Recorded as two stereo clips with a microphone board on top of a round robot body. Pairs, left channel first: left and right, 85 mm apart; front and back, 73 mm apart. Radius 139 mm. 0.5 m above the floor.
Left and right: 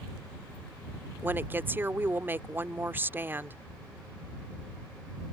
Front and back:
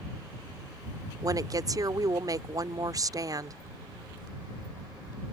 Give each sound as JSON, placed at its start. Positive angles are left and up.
{"t": 1.2, "sound": "a woman speaking", "azimuth_deg": -155}